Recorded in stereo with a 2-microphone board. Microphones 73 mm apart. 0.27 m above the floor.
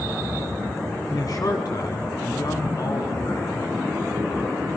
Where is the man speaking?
50° left (ahead or behind), 3 m.